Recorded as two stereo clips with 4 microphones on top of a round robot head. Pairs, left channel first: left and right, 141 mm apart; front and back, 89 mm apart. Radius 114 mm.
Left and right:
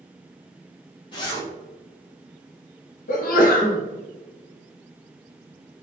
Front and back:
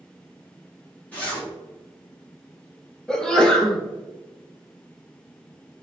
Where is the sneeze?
80° left, 1.0 m.